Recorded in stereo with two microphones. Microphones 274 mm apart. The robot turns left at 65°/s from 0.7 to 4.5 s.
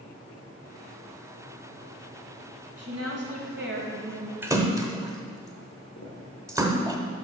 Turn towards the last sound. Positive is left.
turn(degrees=55)  # may be behind; listen again after turning